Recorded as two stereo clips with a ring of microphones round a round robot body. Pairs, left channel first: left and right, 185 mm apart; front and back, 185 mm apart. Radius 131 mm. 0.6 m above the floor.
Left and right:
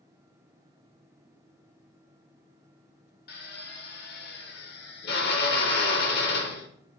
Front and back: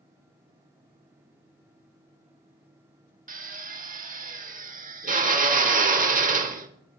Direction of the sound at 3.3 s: 135° left.